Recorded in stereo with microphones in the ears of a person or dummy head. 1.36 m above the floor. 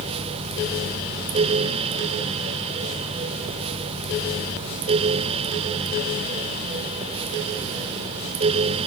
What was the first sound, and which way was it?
Only background noise.